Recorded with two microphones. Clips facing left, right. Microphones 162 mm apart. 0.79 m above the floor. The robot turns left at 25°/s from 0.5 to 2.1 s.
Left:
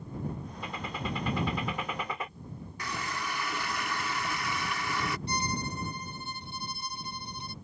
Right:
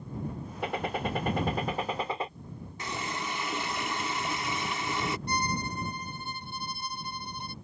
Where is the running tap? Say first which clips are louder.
Right 1 dB; 25° right (ahead or behind).